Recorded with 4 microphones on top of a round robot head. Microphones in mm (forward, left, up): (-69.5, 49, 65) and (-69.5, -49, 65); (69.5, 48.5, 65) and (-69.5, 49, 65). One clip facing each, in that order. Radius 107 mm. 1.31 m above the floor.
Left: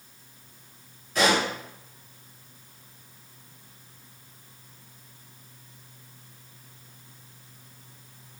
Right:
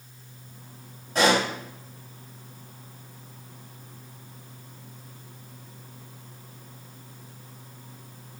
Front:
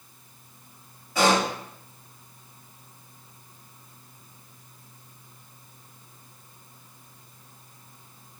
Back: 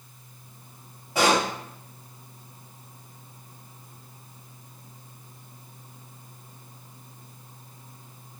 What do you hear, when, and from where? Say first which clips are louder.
1.1 s a pop: right 2 dB, even; 125° right, 1.1 m